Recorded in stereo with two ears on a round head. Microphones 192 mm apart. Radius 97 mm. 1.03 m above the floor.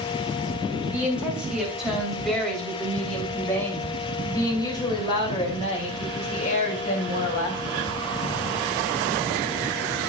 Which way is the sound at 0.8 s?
10° right (ahead or behind).